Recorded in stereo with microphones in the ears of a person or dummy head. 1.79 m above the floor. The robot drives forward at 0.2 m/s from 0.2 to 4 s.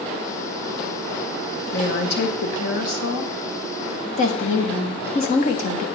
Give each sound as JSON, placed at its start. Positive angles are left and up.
{"t": 1.7, "sound": "a woman speaking", "side_deg": 60, "distance_m": 1.8}
{"t": 4.2, "sound": "a woman speaking", "side_deg": 45, "distance_m": 1.1}